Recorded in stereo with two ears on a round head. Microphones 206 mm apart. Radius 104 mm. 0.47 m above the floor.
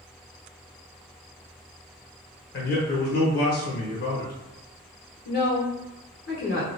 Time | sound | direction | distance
2.5 | a man speaking | 45° left (ahead or behind) | 1.1 m
5.2 | a woman speaking | 45° left (ahead or behind) | 1.1 m